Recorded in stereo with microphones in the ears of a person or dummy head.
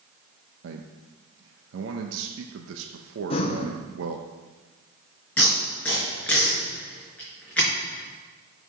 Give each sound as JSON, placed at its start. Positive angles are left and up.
{"t": 0.6, "sound": "a man speaking", "side_deg": -75, "distance_m": 0.8}
{"t": 3.3, "sound": "breathing", "side_deg": 30, "distance_m": 0.8}
{"t": 5.4, "sound": "tape being pulled", "side_deg": 5, "distance_m": 4.0}